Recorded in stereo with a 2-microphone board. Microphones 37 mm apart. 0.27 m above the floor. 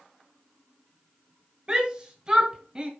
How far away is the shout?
About 1.6 m.